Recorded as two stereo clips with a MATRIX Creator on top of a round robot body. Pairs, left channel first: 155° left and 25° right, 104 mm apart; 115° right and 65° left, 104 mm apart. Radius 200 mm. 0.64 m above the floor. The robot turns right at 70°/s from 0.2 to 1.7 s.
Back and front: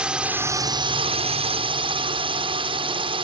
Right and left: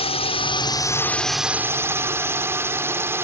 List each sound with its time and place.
0.0 s a drone: 105° right; by 3.2 s straight ahead